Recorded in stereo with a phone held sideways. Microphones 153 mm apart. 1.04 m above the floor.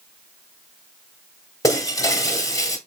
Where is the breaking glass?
20° left (ahead or behind), 1.0 m.